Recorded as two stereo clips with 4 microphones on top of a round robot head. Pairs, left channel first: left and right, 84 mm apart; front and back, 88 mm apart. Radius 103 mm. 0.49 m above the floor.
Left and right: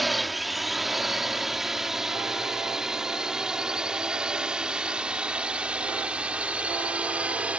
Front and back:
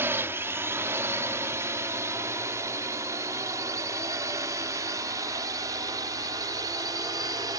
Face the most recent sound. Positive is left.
turn(degrees=-160)